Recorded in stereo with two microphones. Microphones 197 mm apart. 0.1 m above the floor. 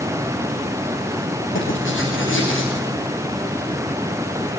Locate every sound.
1.6 s writing: 85° left, 9.5 m